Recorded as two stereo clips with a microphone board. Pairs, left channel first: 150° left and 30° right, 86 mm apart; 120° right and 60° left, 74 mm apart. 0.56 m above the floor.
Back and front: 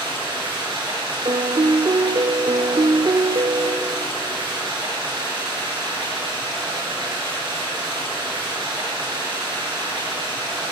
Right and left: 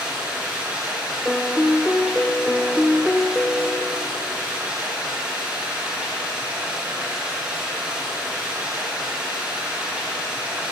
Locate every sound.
0.0 s running water: 15° right, 6 m
1.2 s a piano: 40° right, 0.8 m